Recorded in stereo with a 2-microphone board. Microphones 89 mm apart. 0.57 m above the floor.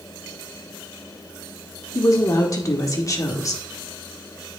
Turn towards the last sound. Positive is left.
turn(degrees=35)  # may be behind; listen again after turning